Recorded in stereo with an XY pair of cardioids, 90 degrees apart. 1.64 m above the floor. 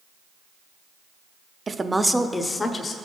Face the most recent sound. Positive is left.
turn(degrees=50)